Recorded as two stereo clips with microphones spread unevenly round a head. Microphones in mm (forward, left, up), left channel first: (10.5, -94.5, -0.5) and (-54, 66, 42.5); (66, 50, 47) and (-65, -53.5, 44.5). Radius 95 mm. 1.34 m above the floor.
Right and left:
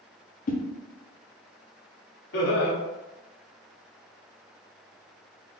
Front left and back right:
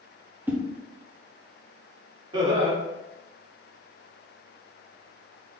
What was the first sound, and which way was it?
A whoosh, 65° right.